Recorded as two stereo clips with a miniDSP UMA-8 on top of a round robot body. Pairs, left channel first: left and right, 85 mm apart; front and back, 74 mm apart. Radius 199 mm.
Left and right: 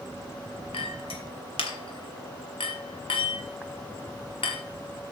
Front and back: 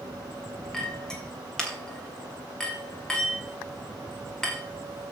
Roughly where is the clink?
Left.